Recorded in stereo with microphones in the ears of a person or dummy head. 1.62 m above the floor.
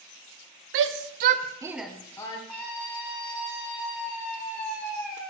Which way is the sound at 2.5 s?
5° left (ahead or behind).